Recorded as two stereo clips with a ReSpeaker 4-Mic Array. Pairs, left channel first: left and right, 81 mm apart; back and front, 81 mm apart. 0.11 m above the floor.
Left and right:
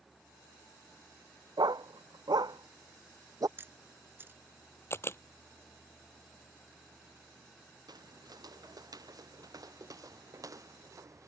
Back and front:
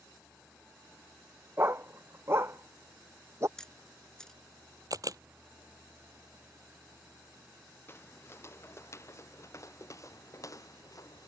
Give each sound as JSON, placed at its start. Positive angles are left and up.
{"t": 1.6, "sound": "a dog barking", "azimuth_deg": -60}
{"t": 3.6, "sound": "a camera shutter", "azimuth_deg": -110}
{"t": 4.9, "sound": "a camera shutter", "azimuth_deg": 35}
{"t": 7.9, "sound": "footsteps", "azimuth_deg": -120}